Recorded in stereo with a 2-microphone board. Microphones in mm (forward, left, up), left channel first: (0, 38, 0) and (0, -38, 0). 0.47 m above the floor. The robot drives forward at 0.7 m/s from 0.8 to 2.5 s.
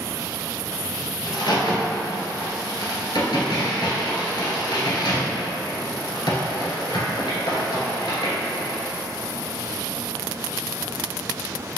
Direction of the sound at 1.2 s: 65° left (ahead or behind).